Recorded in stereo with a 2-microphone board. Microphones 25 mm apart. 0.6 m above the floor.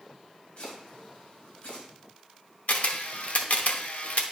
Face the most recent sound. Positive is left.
turn(degrees=70)  # may be behind; listen again after turning